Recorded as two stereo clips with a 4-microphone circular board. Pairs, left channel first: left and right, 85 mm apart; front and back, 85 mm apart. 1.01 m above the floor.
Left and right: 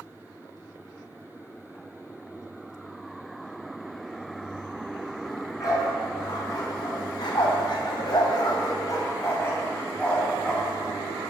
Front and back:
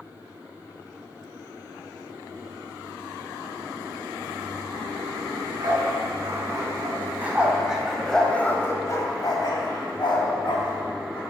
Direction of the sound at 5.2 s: 135° left.